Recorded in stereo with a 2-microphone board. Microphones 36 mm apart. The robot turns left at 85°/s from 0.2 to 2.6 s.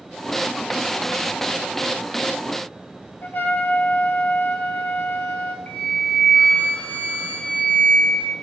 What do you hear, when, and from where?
3.2 s a trumpet: 65° left (ahead or behind), 0.5 m
5.7 s a flute: 55° left (ahead or behind), 1.1 m